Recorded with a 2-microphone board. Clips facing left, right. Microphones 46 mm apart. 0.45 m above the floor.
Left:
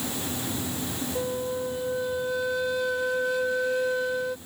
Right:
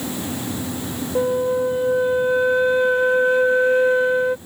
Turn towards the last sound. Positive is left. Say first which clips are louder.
# right 12 dB
turn(degrees=-35)  # may be behind; listen again after turning